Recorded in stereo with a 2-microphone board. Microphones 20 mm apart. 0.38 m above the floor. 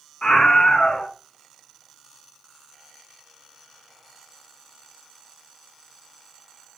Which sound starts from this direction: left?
A scream, at 0.2 s.